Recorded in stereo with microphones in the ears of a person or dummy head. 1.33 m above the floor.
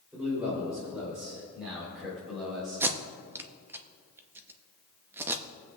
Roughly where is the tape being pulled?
Centre.